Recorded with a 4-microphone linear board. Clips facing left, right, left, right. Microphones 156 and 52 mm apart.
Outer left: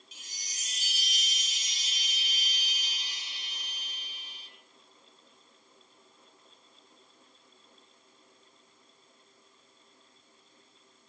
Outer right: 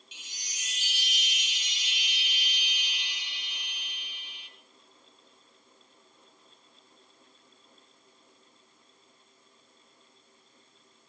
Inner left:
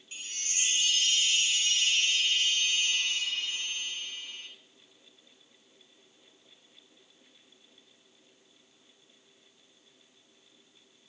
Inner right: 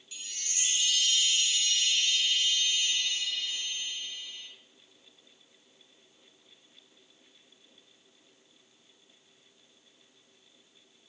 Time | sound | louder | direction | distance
0.1 | a chime | outer right 2 dB, inner left 3 dB | 40° left (ahead or behind) | 0.8 m